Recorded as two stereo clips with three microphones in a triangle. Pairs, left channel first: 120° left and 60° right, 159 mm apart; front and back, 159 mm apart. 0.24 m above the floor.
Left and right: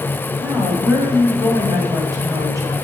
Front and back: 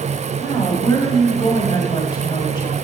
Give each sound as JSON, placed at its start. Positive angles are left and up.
{"t": 0.4, "sound": "a woman speaking", "azimuth_deg": -15, "distance_m": 1.5}